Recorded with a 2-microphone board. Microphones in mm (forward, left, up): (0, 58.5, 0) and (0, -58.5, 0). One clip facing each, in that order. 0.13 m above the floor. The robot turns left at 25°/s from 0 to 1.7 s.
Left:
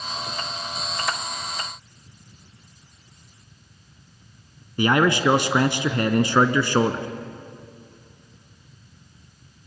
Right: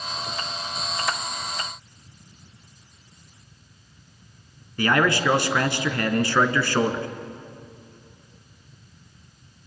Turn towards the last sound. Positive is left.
turn(degrees=20)  # may be behind; listen again after turning